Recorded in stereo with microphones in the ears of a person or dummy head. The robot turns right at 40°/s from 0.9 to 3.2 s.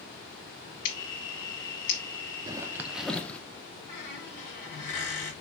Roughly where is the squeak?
Left.